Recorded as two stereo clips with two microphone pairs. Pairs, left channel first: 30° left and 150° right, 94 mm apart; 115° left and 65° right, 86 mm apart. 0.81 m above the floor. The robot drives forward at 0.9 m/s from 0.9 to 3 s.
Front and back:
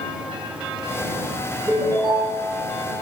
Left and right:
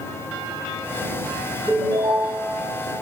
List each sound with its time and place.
1.7 s a ringtone: 100° right, 3 m; by 2.5 s 110° right, 3.5 m